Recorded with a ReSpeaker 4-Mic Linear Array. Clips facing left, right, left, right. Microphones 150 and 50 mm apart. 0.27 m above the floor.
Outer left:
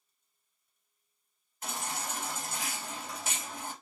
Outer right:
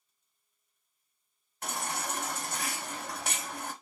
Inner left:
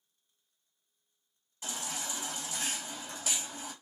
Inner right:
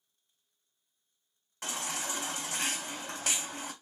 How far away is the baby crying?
About 0.8 m.